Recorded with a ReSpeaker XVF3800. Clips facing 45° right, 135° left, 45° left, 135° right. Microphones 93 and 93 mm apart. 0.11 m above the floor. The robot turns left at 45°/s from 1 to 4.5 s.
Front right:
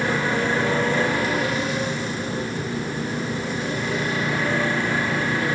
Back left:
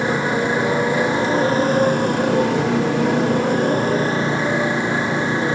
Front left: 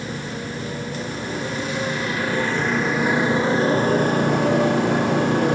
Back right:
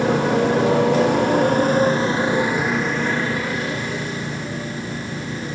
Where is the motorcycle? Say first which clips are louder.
Back left 3 dB, back right 12 dB; 155° right; by 5.5 s 70° left.